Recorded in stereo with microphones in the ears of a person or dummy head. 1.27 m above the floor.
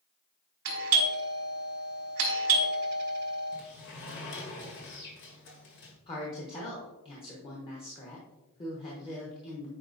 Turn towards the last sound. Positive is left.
turn(degrees=30)  # may be behind; listen again after turning